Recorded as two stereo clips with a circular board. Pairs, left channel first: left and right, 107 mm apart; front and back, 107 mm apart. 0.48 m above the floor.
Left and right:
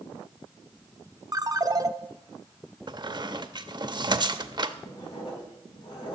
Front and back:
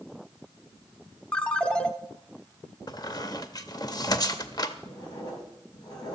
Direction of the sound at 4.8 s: 50° left.